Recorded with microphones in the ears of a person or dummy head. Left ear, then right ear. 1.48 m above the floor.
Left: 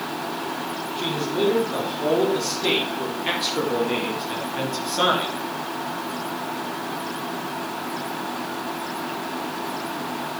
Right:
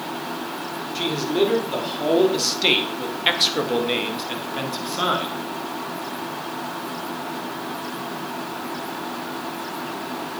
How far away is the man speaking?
About 4.5 m.